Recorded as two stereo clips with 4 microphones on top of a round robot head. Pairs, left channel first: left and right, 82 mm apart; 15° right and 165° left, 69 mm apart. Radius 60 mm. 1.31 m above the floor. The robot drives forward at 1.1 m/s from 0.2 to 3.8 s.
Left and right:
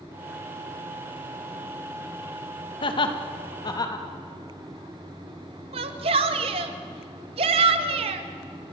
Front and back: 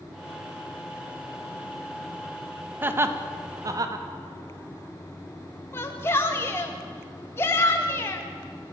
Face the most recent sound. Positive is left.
turn(degrees=-75)